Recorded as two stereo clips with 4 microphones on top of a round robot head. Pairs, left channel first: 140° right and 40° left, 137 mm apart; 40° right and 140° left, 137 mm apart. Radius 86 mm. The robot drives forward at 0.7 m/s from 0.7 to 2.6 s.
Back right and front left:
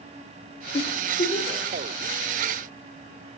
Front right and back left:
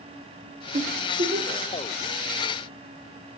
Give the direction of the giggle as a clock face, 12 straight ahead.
6 o'clock.